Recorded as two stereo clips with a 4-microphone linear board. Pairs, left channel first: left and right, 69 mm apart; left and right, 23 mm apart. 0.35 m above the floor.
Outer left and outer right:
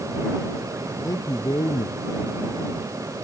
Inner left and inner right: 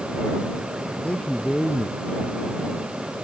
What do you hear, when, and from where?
1.0 s a man speaking: 60° left (ahead or behind)